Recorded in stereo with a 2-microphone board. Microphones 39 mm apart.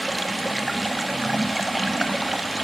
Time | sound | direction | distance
0.0 | running water | centre (ahead or behind) | 1.5 m